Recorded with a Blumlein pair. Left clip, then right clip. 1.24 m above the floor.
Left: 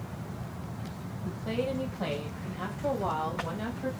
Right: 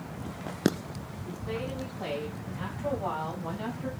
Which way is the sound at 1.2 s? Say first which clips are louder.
Left 4 dB; 60° left.